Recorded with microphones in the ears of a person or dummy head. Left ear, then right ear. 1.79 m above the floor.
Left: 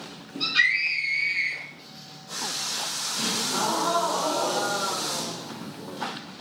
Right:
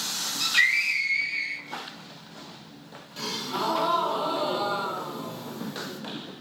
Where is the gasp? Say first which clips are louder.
Left 2 dB; 50° right (ahead or behind), 1.0 m.